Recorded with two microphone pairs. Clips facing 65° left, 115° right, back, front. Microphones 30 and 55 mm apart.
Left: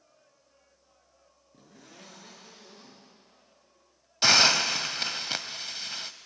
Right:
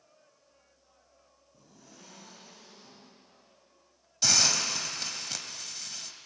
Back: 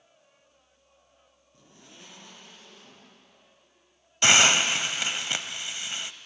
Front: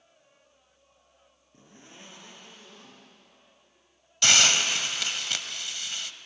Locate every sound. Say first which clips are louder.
1.5 s a zipper: left 4 dB, front 2 dB; 45° left, 6.5 m
4.2 s a hiss: left 6 dB, back 3 dB; 115° left, 0.7 m